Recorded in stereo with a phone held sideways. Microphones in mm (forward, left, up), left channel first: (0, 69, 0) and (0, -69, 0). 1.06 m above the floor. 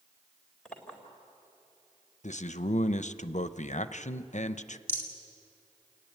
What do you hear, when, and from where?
0.7 s a clink: 5° left (ahead or behind), 3.5 m
2.2 s a man speaking: 65° left (ahead or behind), 0.6 m
4.9 s a rattle: 15° left (ahead or behind), 2.5 m